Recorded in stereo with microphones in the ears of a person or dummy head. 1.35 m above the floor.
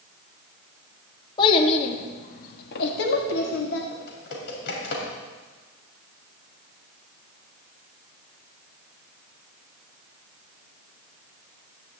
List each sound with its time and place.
1.4 s a child speaking: 35° left (ahead or behind), 1.4 m; by 3.8 s 55° left (ahead or behind), 1.7 m
3.9 s typing on a keyboard: 70° left (ahead or behind), 3 m